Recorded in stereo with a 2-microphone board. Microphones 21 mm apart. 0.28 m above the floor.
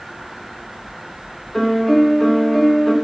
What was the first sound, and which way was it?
A piano, 30° left (ahead or behind).